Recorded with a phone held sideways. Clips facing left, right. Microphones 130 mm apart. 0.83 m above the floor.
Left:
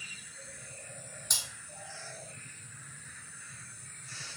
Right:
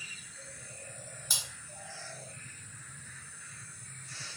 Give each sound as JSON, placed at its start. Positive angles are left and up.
{"t": 1.3, "sound": "cutlery clinking", "side_deg": -5, "distance_m": 1.2}